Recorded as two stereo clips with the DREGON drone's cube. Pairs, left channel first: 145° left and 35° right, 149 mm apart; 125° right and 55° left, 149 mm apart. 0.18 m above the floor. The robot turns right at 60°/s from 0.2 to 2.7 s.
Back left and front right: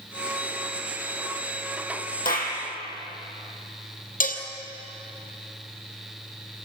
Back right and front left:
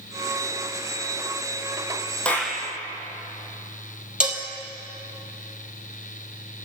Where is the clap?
150° left, 4 m; by 2.6 s 170° left, 4 m.